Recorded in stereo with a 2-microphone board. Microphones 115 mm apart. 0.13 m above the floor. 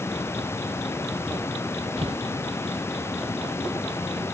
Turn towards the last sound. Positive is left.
turn(degrees=-60)  # may be behind; listen again after turning